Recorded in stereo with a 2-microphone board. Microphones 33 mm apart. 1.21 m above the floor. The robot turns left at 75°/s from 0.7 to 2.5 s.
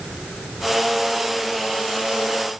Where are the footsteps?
I don't hear footsteps.